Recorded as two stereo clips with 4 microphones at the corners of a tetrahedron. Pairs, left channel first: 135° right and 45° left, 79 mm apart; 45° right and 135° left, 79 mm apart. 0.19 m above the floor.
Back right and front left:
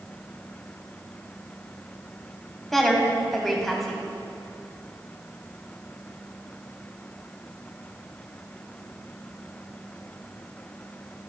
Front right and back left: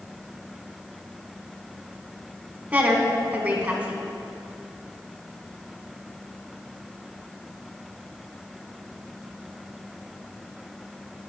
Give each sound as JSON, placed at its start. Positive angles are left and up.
{"t": 2.7, "sound": "a woman speaking", "azimuth_deg": 140, "distance_m": 1.1}